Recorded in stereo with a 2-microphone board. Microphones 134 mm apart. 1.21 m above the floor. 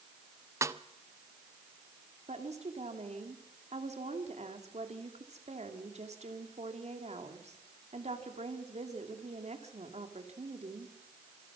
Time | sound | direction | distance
0.6 | a snare drum | 20° right (ahead or behind) | 0.7 m
2.3 | a woman speaking | 55° right (ahead or behind) | 2.5 m